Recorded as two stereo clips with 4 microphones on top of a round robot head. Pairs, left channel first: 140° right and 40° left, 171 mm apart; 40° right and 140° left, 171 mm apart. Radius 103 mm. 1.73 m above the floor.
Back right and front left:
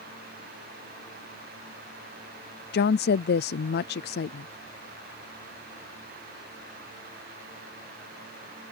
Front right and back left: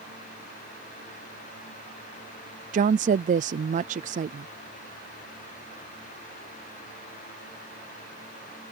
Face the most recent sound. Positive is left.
turn(degrees=-170)